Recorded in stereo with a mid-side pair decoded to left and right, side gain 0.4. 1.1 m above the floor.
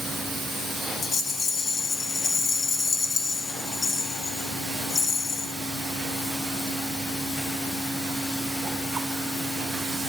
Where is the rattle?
45° left, 9 m.